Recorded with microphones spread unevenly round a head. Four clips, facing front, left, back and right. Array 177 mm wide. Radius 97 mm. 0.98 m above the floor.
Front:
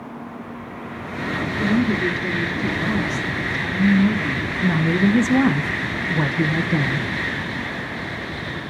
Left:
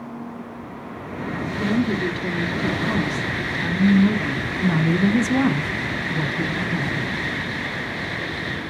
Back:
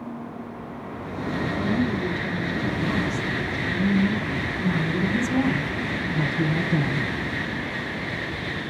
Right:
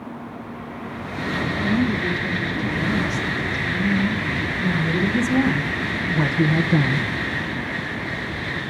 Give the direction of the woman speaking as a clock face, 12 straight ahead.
11 o'clock.